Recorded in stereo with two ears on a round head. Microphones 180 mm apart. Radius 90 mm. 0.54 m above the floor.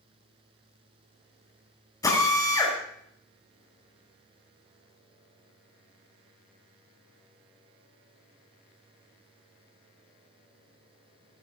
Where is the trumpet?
I don't hear a trumpet.